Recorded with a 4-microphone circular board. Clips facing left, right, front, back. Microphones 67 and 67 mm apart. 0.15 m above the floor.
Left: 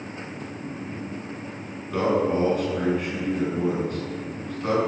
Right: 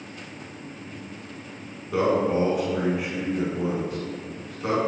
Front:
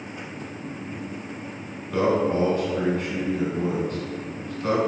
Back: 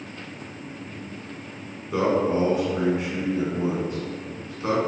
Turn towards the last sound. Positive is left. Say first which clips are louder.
# even, even
turn(degrees=-155)